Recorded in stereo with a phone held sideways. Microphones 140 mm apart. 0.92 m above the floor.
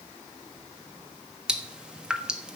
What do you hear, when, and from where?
1.5 s dripping: 5° right (ahead or behind), 1.2 m